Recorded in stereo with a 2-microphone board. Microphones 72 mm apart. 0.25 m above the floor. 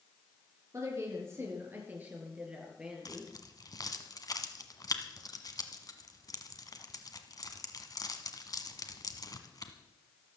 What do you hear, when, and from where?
0.7 s a woman speaking: 40° right (ahead or behind), 4.5 m; by 3.3 s 5° right (ahead or behind), 4.5 m
3.0 s keys jangling: 55° left (ahead or behind), 1.4 m